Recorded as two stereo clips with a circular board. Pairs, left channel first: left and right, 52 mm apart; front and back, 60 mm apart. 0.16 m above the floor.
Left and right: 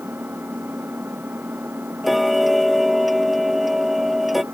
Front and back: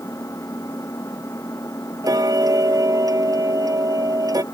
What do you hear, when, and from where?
0.0 s an engine running: 35° right
2.0 s ticking: straight behind